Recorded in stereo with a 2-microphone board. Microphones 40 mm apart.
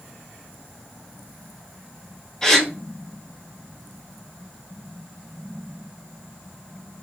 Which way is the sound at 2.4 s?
15° left (ahead or behind).